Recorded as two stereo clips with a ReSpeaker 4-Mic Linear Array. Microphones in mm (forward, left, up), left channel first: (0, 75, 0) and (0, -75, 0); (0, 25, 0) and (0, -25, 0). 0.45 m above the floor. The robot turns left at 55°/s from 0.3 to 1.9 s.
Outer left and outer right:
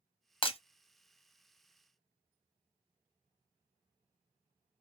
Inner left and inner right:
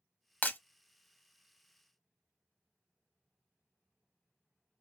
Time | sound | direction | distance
0.4 | breaking glass | 35° left (ahead or behind) | 0.5 m